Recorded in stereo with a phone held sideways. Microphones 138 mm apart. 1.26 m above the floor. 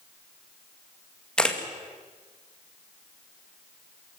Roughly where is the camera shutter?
Centre.